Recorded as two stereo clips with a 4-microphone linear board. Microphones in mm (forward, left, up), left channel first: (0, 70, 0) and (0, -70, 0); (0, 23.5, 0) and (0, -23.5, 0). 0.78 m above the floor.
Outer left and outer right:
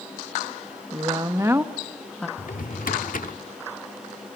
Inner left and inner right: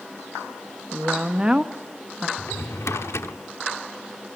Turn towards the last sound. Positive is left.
turn(degrees=80)